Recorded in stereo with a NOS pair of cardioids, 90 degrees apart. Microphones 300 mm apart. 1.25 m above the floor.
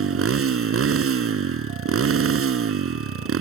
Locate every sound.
0.0 s a motorcycle: 50° right